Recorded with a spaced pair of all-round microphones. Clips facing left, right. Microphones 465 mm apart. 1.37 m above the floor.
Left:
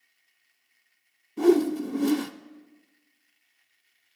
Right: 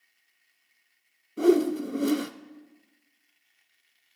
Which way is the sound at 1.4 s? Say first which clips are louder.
Left 1 dB; 10° left (ahead or behind).